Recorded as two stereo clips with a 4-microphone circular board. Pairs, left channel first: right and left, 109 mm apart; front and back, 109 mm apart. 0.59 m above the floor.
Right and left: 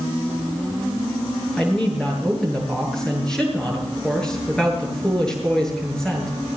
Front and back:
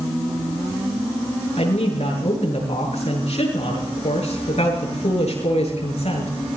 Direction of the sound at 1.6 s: 5° right.